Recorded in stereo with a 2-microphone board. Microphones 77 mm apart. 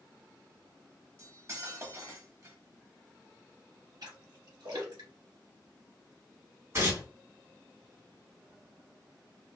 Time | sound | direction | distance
1.2 | cutlery clinking | 40° right (ahead or behind) | 0.8 m
4.0 | a splash | 60° right (ahead or behind) | 1.5 m
6.7 | tearing paper | 35° right (ahead or behind) | 1.9 m